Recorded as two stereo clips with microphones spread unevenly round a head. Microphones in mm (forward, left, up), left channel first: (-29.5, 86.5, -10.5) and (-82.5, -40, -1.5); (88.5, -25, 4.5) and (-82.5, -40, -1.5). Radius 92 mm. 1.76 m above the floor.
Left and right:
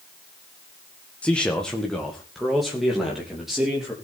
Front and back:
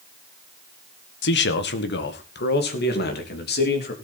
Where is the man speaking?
15° right, 1.5 m; by 3.9 s 25° right, 4 m.